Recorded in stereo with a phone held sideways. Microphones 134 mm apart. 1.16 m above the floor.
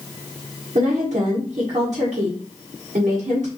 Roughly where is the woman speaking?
Right.